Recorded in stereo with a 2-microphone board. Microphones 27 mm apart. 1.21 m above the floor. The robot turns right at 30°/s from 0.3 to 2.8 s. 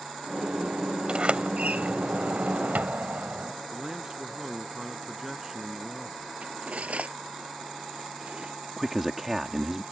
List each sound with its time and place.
1.1 s a sliding door: 140° right; by 3.5 s 90° right
3.7 s a man speaking: 15° right (ahead or behind)
6.4 s cutlery clinking: 50° right (ahead or behind)
8.8 s a man speaking: 10° right (ahead or behind)